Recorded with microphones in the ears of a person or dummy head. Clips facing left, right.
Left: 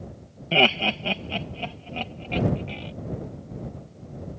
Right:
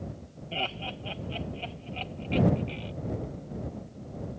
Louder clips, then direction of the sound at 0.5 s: Left 13 dB; 80° left.